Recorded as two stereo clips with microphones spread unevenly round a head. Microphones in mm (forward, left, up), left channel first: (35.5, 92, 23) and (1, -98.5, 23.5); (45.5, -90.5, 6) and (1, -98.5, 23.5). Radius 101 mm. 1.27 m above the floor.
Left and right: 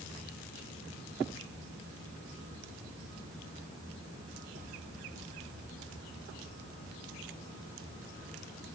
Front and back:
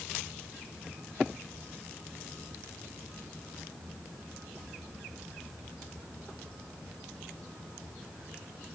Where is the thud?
I don't hear a thud.